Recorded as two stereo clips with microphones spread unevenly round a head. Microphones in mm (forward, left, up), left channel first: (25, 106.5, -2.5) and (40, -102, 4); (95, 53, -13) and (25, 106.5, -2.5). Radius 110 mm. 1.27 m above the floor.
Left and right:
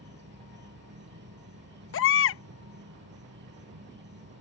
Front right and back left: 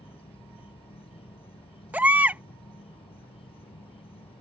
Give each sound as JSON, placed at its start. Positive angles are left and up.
{"t": 0.0, "sound": "an insect", "azimuth_deg": -50}
{"t": 1.9, "sound": "a baby crying", "azimuth_deg": 70}